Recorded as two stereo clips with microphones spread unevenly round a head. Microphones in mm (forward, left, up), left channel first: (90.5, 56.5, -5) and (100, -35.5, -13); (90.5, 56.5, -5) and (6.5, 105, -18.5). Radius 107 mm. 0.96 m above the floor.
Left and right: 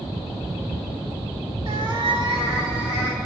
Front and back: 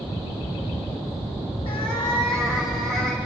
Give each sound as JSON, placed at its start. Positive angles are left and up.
{"t": 1.6, "sound": "a cat meowing", "azimuth_deg": -60, "distance_m": 1.6}